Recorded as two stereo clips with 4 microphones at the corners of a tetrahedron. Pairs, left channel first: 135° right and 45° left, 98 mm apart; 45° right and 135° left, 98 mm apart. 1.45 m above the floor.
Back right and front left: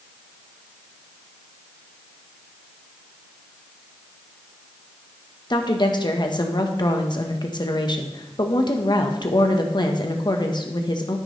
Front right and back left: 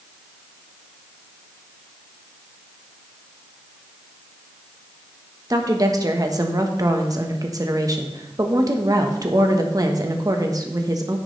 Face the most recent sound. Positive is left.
turn(degrees=-175)